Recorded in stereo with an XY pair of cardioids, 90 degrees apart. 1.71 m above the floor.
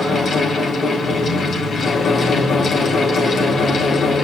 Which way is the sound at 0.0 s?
50° left.